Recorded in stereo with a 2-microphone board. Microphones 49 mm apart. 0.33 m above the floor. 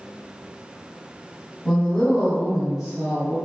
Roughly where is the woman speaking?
Centre.